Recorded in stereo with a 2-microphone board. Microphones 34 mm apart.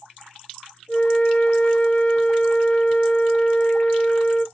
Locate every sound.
0.9 s a flute: 35° left (ahead or behind), 3.5 m